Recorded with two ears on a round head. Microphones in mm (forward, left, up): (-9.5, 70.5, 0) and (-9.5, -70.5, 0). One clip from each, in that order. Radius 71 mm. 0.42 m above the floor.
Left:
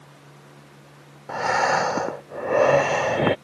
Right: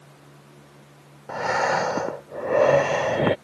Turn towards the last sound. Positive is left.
turn(degrees=10)  # may be behind; listen again after turning